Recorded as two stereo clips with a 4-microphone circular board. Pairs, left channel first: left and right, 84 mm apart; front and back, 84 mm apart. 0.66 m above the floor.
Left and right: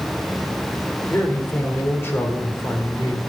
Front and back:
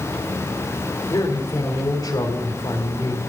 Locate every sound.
1.1 s a man speaking: 30° left, 2.5 m